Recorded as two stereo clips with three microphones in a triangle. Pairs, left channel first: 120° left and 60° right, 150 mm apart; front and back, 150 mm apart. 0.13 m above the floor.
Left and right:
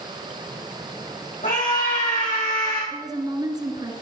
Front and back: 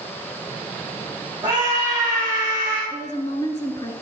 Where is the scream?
110° left, 4.5 m.